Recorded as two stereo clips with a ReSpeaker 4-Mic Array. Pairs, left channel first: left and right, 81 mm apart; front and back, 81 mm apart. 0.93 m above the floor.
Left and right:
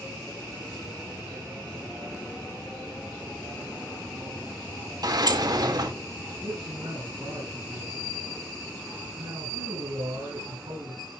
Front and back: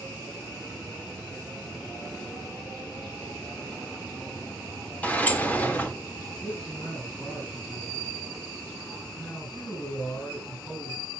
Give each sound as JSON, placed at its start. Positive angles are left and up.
{"t": 5.0, "sound": "a sliding door", "azimuth_deg": -70, "distance_m": 1.8}
{"t": 6.4, "sound": "a man speaking", "azimuth_deg": -80, "distance_m": 6.5}